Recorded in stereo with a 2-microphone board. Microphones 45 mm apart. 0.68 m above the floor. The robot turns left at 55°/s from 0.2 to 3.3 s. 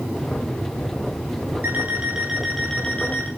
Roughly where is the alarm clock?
Behind right.